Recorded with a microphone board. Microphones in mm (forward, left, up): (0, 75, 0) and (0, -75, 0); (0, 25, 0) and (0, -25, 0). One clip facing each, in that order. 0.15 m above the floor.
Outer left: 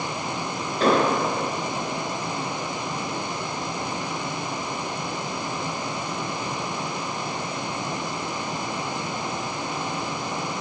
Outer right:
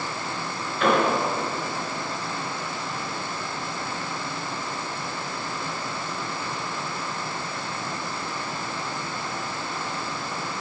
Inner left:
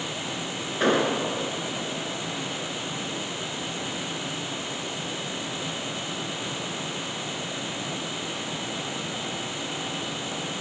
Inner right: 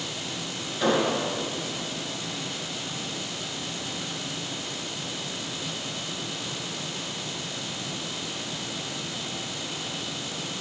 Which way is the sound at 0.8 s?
35° left (ahead or behind).